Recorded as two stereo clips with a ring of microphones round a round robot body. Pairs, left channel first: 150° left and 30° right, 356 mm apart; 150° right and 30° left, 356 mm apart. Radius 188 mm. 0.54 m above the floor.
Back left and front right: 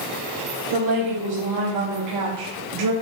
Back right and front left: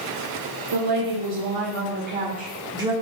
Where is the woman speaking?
10° left, 1.6 m; by 2.9 s 50° right, 1.4 m.